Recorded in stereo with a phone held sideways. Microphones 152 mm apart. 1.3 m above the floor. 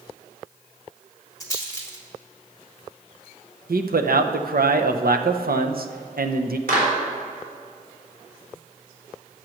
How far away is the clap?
About 4 m.